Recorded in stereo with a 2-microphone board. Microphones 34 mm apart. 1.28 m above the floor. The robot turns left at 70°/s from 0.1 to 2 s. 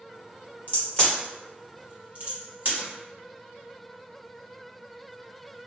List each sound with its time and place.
0.7 s a crack: 40° left (ahead or behind), 1.3 m; by 2.9 s 50° right (ahead or behind), 1.3 m